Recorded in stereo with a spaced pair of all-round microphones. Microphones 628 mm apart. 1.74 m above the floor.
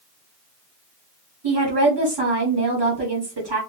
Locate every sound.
1.4 s a woman speaking: 40° right (ahead or behind), 1.1 m